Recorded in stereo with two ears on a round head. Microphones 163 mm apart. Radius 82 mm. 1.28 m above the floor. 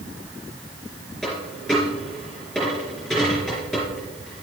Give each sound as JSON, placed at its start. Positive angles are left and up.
{"t": 1.2, "sound": "a dropped coin", "side_deg": 0, "distance_m": 4.0}